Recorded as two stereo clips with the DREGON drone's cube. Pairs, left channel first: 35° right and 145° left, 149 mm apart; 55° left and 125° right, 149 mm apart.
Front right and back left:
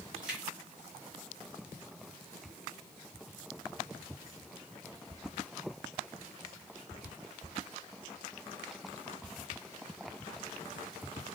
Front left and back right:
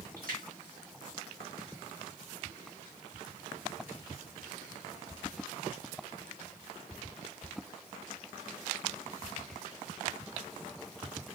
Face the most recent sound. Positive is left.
turn(degrees=-130)